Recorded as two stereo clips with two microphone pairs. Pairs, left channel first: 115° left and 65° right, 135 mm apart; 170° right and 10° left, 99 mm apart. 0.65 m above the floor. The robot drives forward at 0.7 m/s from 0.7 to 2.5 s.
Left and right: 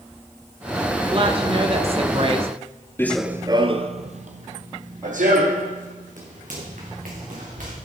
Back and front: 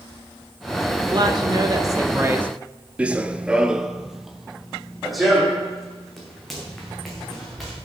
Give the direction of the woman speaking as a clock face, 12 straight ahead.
1 o'clock.